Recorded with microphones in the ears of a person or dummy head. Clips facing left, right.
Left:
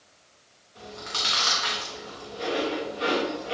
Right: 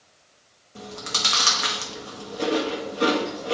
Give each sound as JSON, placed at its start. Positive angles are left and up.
{"t": 0.8, "sound": "chewing", "side_deg": -55, "distance_m": 1.1}